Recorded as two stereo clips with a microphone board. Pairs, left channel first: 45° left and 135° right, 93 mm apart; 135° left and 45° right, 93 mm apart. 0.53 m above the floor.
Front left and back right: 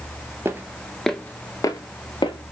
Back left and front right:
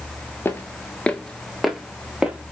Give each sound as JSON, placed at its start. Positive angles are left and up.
{"t": 0.5, "sound": "footsteps", "azimuth_deg": -175, "distance_m": 0.6}